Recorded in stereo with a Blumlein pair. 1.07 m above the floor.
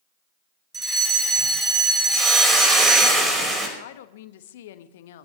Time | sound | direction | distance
0.7 | a fire alarm | 15° right | 7.5 m
2.1 | a hiss | 15° right | 5.5 m
3.8 | a woman speaking | 55° left | 1.2 m